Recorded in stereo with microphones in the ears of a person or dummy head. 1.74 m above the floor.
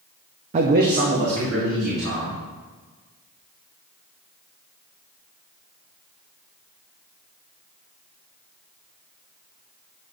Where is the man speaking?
40° right (ahead or behind), 0.5 m; by 2.4 s 70° right (ahead or behind), 3.5 m.